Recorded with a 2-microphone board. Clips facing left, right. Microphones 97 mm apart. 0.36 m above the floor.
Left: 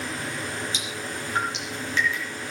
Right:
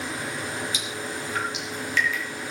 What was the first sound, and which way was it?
Dripping, 30° left (ahead or behind).